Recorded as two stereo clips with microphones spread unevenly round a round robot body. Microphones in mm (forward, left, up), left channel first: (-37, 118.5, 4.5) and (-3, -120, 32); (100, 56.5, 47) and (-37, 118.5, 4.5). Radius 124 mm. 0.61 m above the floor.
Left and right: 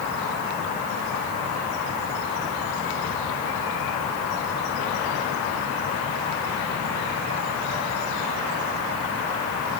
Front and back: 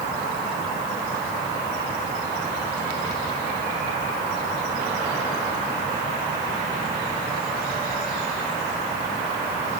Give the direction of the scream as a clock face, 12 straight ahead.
I don't hear a scream.